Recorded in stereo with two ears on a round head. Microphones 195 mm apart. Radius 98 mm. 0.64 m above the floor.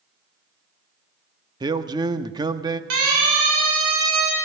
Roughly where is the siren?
Right.